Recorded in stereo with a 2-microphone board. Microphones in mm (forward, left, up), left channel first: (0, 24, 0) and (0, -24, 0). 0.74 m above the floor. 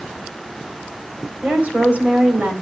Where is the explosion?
I don't hear an explosion.